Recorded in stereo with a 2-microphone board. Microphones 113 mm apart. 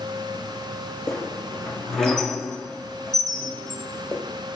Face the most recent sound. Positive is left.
turn(degrees=5)  # may be behind; listen again after turning